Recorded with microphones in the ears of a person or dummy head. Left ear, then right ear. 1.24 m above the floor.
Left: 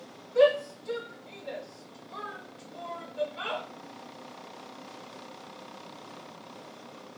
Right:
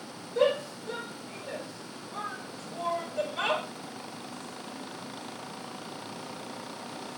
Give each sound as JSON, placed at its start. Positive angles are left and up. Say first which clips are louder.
{"t": 0.3, "sound": "a shout", "louder": "left 4 dB", "side_deg": 50, "distance_m": 1.7}